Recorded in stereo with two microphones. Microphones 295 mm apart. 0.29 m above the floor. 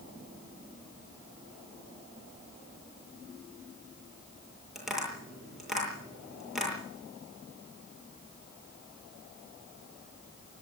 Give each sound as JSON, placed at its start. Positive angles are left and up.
{"t": 4.8, "sound": "tapping", "side_deg": 0, "distance_m": 8.5}